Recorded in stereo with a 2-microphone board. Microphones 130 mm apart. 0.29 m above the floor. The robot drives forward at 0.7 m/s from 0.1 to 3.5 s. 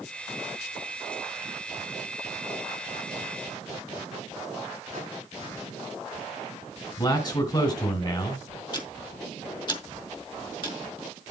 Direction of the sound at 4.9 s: 60° right (ahead or behind).